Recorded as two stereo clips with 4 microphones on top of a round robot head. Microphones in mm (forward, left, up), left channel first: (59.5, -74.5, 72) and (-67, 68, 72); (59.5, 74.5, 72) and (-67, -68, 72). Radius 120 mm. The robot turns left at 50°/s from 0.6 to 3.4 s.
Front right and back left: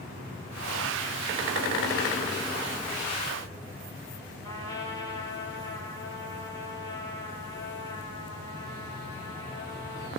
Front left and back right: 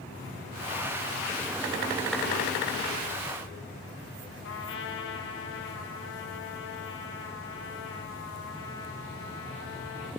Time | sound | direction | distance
4.4 | a trumpet | 25° left | 9.5 m